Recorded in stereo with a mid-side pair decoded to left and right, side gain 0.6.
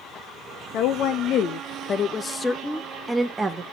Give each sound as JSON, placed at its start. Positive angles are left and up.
{"t": 0.7, "sound": "a woman speaking", "azimuth_deg": 70, "distance_m": 1.7}